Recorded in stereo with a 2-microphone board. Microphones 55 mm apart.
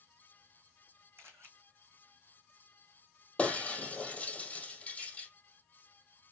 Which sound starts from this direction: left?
Breaking glass, at 3.4 s.